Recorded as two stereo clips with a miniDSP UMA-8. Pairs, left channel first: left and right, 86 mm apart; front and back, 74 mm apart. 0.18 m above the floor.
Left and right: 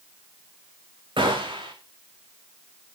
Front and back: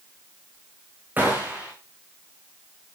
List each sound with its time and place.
1.2 s a gunshot: 110° right, 5 m